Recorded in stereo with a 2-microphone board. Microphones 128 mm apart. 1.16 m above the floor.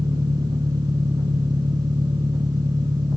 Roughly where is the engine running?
Right.